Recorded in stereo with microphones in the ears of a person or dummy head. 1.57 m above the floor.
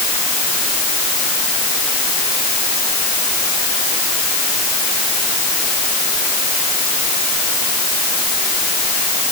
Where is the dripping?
No dripping in this recording.